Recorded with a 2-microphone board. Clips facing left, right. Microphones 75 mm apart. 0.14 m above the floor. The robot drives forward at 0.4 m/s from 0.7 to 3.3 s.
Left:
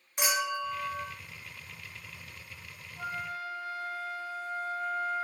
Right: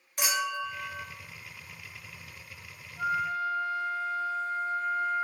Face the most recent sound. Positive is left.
turn(degrees=10)  # may be behind; listen again after turning